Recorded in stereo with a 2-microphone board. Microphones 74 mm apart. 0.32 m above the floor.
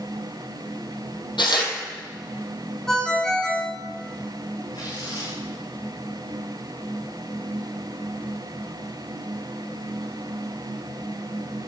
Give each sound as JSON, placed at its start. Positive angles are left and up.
{"t": 1.4, "sound": "tearing paper", "side_deg": 80, "distance_m": 3.0}
{"t": 2.9, "sound": "a ringtone", "side_deg": 10, "distance_m": 2.5}
{"t": 4.7, "sound": "tearing paper", "side_deg": 85, "distance_m": 8.5}